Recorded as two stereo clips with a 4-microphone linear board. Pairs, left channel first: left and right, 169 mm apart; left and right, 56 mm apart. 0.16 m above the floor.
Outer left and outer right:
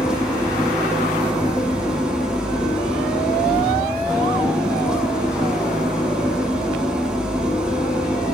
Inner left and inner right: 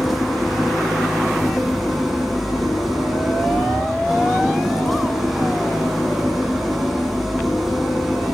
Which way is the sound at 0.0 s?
5° right (ahead or behind).